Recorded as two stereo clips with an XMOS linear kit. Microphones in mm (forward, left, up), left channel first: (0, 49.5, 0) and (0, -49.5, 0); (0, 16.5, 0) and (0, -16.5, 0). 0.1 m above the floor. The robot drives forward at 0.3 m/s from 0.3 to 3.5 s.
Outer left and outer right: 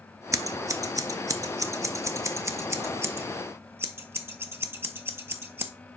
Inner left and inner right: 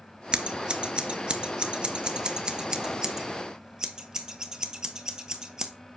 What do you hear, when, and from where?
0.3 s scissors: 35° right (ahead or behind), 0.7 m; by 5.7 s 25° right (ahead or behind), 1.0 m